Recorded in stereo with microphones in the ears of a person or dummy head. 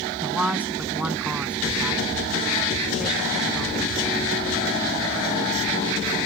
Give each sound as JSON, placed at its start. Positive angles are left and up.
{"t": 0.2, "sound": "a man speaking", "side_deg": -5}